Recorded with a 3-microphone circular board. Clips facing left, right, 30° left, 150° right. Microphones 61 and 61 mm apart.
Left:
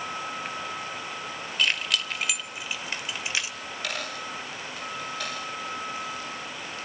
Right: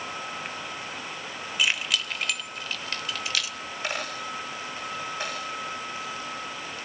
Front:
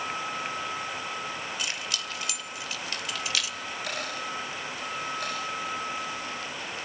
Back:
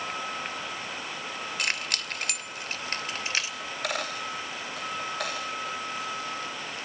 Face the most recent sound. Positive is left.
turn(degrees=-150)